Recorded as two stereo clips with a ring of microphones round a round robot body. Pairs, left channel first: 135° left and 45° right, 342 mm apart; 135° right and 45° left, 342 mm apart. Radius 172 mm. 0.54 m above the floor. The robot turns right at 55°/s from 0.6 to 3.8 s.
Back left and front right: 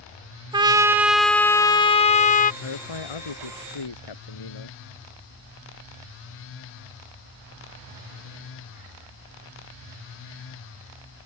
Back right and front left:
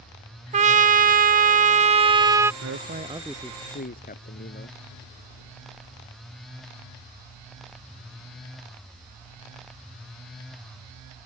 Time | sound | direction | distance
0.5 | a trumpet | 10° left | ?
2.6 | a man speaking | 95° left | ?